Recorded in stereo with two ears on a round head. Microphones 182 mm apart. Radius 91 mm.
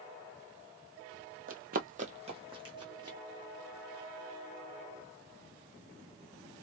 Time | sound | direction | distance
1.5 | running footsteps | 40° right (ahead or behind) | 0.6 m